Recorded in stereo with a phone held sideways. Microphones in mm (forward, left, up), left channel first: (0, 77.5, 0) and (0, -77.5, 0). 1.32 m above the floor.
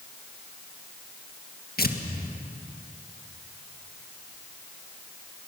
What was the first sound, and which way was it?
Tearing paper, 80° left.